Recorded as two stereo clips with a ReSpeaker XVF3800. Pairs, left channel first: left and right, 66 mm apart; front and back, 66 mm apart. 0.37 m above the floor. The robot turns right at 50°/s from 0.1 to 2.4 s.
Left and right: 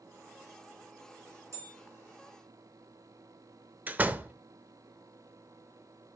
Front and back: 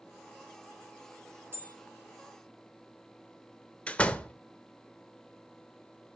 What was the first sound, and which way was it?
A bell, 130° right.